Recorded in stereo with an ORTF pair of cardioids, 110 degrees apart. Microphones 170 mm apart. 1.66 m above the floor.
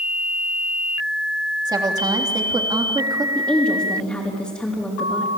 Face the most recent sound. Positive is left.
turn(degrees=5)